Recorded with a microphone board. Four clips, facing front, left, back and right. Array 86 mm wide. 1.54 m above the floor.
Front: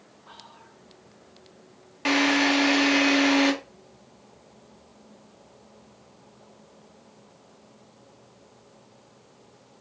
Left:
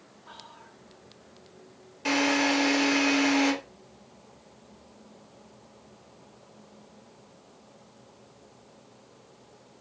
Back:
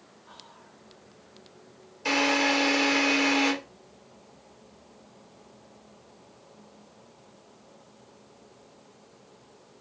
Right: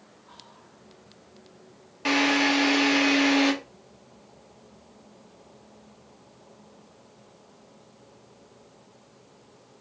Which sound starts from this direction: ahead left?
Whispering, at 0.3 s.